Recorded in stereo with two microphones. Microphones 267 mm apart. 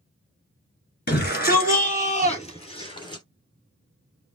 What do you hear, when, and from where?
1.1 s a shout: 40° left (ahead or behind), 1.9 m; by 3.2 s 15° left (ahead or behind), 2.5 m